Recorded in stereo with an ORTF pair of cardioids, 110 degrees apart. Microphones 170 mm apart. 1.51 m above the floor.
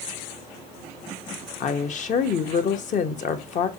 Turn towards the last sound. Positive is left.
turn(degrees=50)